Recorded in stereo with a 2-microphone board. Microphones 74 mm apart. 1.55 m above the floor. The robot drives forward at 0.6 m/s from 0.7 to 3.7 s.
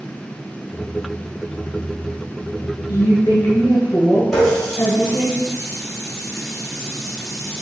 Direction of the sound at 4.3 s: 10° left (ahead or behind).